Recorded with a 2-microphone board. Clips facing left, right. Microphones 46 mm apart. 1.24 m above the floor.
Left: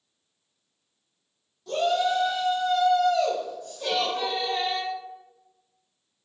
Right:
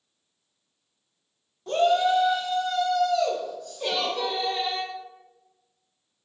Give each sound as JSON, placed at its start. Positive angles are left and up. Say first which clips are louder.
{"t": 1.7, "sound": "a shout", "louder": "right 3 dB", "side_deg": -40, "distance_m": 0.7}
{"t": 3.8, "sound": "a giggle", "louder": "left 1 dB", "side_deg": -30, "distance_m": 0.8}